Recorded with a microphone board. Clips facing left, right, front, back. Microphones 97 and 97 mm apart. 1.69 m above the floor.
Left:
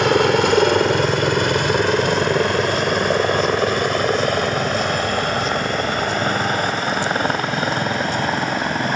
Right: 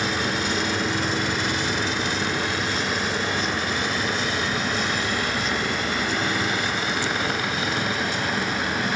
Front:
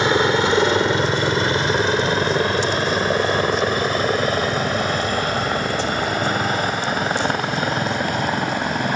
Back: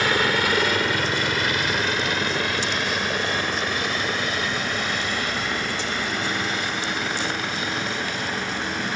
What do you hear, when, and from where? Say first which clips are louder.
0.0 s a helicopter: left 11 dB, front 5 dB; 65° left; by 9.0 s 40° left